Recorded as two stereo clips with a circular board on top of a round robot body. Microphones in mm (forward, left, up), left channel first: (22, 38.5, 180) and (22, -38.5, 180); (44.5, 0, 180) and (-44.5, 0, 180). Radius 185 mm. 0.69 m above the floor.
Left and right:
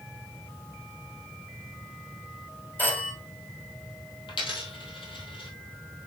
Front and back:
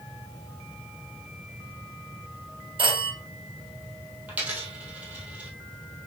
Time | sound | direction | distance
2.8 | a phone ringing | 155° left | 3 m
4.3 | a dropped coin | 105° left | 1.4 m